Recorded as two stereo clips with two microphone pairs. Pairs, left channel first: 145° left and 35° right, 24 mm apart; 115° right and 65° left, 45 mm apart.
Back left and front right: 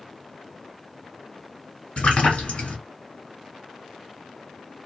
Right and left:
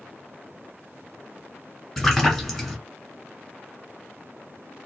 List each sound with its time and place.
2.0 s a splash: 160° left, 1.4 m